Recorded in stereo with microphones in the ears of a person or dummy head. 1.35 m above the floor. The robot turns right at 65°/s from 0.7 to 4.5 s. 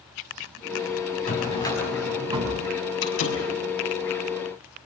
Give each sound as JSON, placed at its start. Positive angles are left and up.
{"t": 1.3, "sound": "a drawer", "azimuth_deg": 135, "distance_m": 5.5}
{"t": 3.0, "sound": "a door slam", "side_deg": 65, "distance_m": 6.5}